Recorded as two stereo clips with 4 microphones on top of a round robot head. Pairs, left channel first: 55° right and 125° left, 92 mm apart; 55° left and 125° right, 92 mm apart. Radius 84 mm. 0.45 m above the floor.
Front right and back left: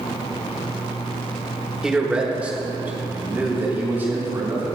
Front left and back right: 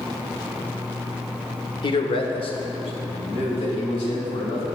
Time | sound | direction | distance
1.8 | a man speaking | 45° left | 1.3 m